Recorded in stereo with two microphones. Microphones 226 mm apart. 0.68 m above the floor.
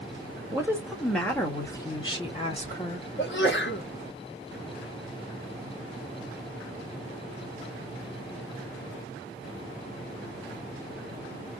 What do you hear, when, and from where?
0.5 s a woman speaking: 15° right (ahead or behind), 1.1 m; by 3.1 s 35° left (ahead or behind), 1.7 m
3.2 s a sneeze: 55° left (ahead or behind), 0.9 m